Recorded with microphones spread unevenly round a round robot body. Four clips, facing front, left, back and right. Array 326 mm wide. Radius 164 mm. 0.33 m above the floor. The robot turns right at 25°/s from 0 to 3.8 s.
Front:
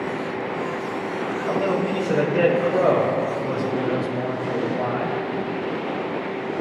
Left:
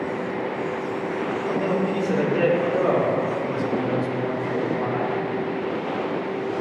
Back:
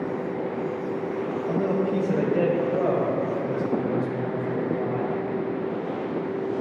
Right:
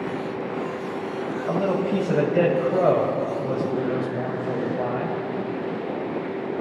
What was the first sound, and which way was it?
A man speaking, 105° right.